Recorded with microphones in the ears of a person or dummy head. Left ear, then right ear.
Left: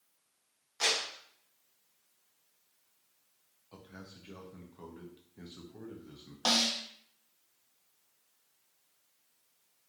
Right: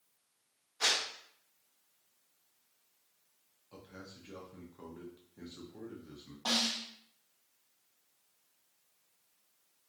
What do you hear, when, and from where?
0.8 s a clap: 65° left (ahead or behind), 1.4 m
3.7 s a man speaking: 10° left (ahead or behind), 0.5 m
6.5 s a snare drum: 75° left (ahead or behind), 0.6 m